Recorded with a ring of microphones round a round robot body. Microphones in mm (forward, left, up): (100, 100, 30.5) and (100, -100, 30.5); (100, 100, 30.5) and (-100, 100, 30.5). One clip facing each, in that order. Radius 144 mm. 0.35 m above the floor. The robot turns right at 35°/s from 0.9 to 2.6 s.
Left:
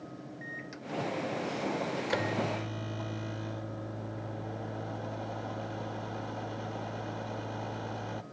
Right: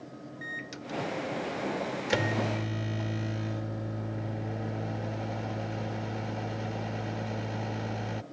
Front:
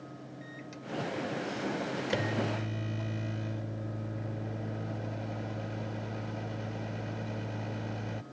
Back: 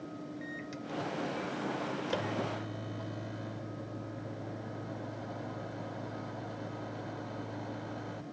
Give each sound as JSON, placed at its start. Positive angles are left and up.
{"t": 0.4, "sound": "a microwave", "azimuth_deg": -100}